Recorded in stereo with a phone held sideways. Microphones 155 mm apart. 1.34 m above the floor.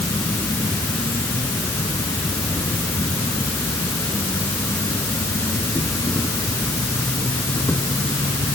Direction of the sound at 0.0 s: 15° left (ahead or behind).